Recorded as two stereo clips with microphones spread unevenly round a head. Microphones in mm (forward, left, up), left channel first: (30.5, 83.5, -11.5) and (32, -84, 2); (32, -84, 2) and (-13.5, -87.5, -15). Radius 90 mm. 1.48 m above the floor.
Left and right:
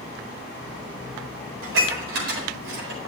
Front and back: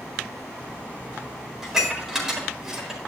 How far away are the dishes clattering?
About 4.5 m.